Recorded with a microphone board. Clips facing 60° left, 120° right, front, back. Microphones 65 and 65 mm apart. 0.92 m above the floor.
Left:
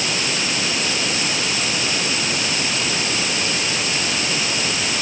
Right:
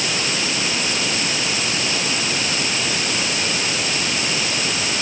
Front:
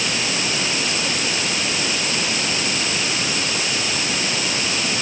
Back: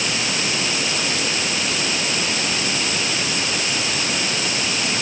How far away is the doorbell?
No doorbell in this recording.